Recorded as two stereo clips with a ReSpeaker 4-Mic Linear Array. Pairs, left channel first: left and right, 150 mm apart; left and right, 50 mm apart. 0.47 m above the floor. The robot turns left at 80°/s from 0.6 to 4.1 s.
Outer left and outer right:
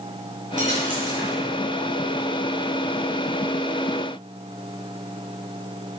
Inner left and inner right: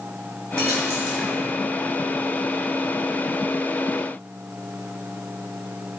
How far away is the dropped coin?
About 3.5 m.